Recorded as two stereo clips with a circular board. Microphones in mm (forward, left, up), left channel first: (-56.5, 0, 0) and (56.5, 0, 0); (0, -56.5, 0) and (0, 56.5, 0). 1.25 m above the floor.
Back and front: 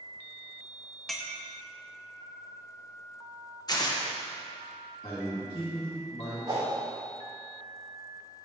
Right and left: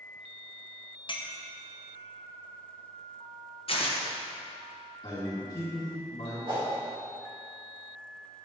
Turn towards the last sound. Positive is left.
turn(degrees=50)